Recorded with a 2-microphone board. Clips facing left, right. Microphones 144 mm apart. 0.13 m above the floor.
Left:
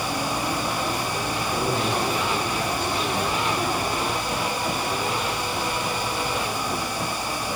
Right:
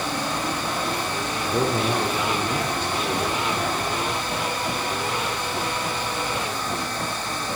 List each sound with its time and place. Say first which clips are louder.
1.4 s a man speaking: right 4 dB; 65° right (ahead or behind), 4.5 m